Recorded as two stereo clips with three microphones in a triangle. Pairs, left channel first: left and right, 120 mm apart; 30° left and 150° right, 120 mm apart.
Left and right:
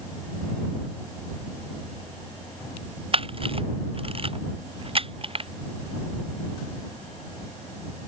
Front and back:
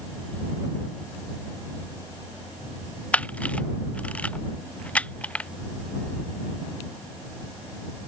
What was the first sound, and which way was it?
A camera shutter, 50° right.